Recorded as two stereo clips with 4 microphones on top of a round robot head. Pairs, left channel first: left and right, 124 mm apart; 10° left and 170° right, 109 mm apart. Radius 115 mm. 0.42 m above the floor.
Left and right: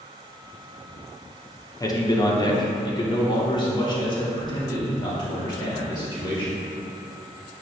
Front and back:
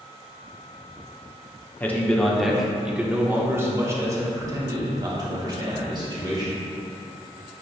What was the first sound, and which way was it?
A man speaking, 70° left.